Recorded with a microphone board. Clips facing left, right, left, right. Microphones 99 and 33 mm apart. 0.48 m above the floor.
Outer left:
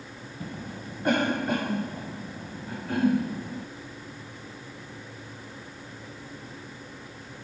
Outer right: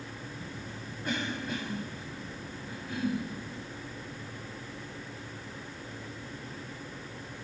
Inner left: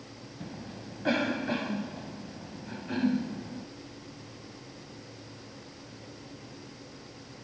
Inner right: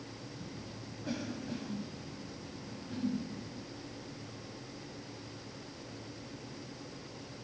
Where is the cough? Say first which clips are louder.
Outer left 4 dB, inner left 4 dB; 65° left (ahead or behind).